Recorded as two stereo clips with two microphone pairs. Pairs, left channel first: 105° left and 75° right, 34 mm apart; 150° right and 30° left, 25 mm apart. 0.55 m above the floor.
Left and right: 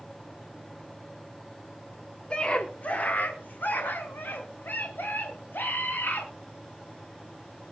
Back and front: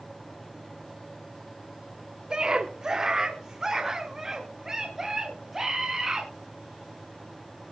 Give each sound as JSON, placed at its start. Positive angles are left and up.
{"t": 2.3, "sound": "a scream", "azimuth_deg": 65, "distance_m": 1.3}